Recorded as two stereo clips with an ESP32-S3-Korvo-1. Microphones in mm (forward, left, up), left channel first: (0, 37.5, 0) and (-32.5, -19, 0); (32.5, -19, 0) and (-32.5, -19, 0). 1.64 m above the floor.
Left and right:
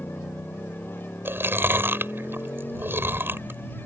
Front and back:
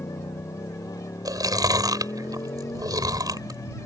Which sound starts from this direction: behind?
Chewing, at 1.2 s.